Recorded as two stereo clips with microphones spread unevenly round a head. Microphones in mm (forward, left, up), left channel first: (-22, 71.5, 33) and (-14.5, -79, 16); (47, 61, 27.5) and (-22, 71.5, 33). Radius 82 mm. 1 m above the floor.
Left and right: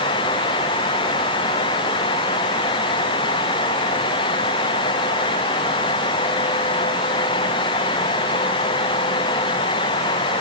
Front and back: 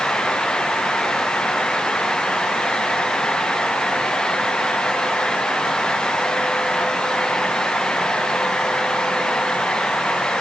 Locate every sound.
Only background noise.